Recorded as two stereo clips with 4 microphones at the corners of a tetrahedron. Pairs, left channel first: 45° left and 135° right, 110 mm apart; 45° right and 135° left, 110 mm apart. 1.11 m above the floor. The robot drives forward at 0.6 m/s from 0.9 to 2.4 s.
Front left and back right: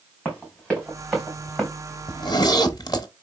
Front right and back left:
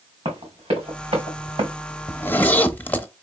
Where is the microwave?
I don't hear a microwave.